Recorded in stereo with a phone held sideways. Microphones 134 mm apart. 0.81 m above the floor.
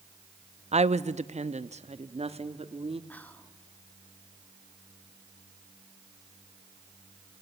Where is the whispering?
10° left (ahead or behind), 2.0 m.